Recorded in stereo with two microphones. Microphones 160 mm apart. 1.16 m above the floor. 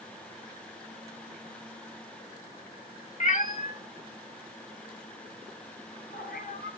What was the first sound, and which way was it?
A cat meowing, 50° left (ahead or behind).